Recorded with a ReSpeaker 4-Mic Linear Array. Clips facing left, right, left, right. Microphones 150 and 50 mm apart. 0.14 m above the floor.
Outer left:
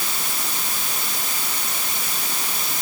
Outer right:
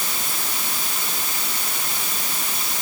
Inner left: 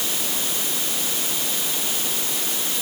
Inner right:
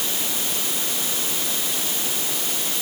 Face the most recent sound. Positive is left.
No sound to turn to.